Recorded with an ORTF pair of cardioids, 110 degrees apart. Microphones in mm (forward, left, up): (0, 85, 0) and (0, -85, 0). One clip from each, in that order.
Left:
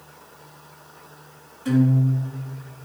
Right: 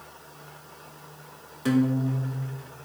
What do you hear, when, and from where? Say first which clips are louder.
1.6 s a guitar: left 2 dB; 65° right, 2 m